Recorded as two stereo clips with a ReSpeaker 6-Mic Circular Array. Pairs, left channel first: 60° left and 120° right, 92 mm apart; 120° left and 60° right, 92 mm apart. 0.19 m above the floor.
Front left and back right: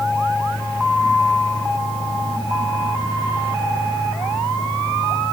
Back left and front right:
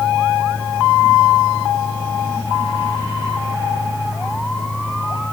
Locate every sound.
Only background noise.